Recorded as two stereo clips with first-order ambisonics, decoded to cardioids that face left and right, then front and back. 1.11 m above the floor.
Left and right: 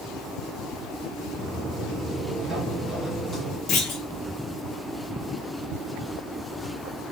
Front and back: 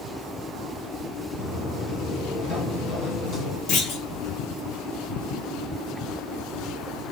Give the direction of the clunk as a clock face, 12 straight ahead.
11 o'clock.